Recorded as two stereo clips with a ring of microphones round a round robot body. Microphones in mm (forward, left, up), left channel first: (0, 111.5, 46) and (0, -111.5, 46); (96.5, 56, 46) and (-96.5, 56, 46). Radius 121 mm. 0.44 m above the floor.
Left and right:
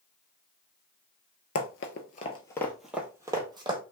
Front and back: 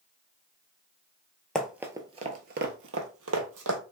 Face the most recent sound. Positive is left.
turn(degrees=-160)